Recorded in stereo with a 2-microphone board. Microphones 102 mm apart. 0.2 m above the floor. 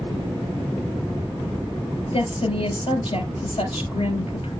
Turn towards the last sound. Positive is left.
turn(degrees=70)  # may be behind; listen again after turning